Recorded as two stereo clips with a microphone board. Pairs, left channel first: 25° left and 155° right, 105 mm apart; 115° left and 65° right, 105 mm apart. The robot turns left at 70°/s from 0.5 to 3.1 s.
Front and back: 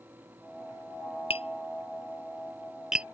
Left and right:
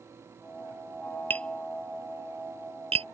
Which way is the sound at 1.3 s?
40° left.